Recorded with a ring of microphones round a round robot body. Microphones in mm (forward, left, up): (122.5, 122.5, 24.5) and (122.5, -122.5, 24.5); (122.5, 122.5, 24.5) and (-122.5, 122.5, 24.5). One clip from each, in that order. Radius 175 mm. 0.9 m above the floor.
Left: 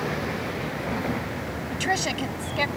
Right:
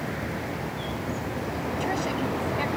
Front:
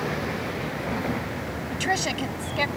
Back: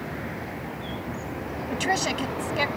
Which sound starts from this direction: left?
A woman speaking, at 1.7 s.